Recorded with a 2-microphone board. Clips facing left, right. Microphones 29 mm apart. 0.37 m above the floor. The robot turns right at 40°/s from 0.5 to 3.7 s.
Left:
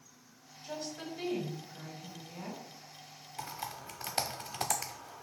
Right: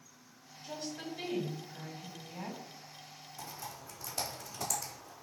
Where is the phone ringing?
No phone ringing in this recording.